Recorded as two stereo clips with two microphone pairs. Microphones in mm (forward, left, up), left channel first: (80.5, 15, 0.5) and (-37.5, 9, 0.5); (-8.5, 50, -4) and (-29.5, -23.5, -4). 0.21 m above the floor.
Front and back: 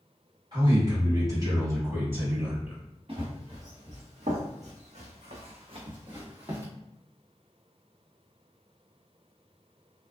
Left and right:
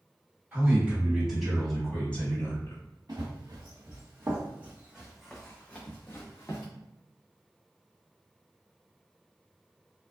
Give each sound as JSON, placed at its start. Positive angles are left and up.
{"t": 0.5, "sound": "a man speaking", "azimuth_deg": -155, "distance_m": 1.5}
{"t": 3.1, "sound": "running footsteps", "azimuth_deg": -145, "distance_m": 1.3}